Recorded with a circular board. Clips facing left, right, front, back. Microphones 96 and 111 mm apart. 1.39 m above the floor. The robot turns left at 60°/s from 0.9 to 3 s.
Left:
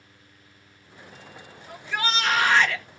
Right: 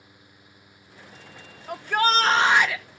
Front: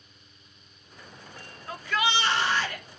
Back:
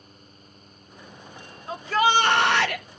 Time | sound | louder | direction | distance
1.7 | a shout | right 6 dB, back 6 dB | 110° right | 1.2 m